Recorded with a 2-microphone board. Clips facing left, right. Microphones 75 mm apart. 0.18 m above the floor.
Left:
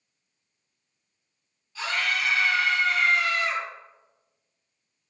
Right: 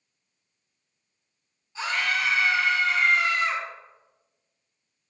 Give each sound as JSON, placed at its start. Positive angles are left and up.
{"t": 1.8, "sound": "a scream", "side_deg": -25, "distance_m": 1.5}